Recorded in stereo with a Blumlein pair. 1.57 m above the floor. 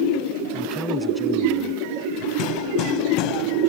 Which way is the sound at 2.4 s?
40° left.